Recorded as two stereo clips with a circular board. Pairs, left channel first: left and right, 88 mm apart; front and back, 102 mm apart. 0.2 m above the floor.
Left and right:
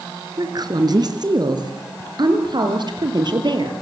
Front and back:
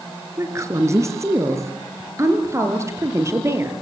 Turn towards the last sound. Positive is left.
turn(degrees=-120)